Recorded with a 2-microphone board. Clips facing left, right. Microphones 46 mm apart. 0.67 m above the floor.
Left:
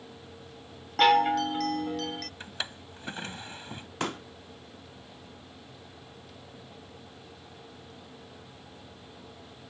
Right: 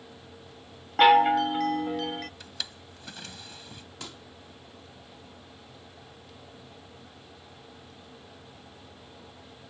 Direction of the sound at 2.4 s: 30° left (ahead or behind).